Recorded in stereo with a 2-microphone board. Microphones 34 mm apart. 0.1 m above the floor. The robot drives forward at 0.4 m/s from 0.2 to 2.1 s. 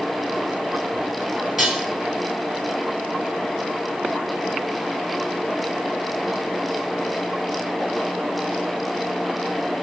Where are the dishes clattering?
5° right (ahead or behind), 1.7 m.